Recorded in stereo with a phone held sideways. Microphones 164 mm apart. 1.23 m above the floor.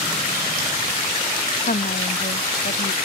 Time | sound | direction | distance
1.6 | a woman speaking | 65° left (ahead or behind) | ?